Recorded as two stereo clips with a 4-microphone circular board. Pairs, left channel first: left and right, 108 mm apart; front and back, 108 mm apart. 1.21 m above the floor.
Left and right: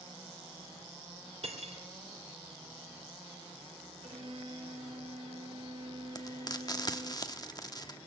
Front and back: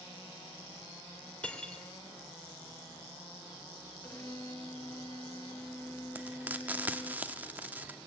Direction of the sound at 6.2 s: 115° left.